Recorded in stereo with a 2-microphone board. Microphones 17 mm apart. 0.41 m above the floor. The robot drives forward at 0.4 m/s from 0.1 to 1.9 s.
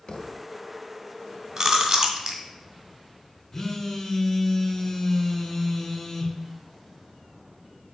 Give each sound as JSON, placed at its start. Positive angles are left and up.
{"t": 0.1, "sound": "a thud", "side_deg": 60, "distance_m": 0.7}
{"t": 1.6, "sound": "chewing", "side_deg": -25, "distance_m": 1.6}
{"t": 3.5, "sound": "a phone buzzing", "side_deg": 35, "distance_m": 1.6}